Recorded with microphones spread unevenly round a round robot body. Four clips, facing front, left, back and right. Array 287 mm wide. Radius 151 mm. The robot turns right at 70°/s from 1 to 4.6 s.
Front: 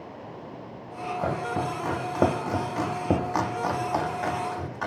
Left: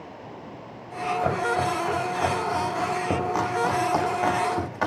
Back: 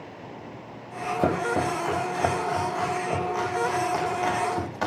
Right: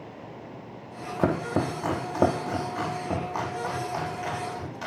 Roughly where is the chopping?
Behind right.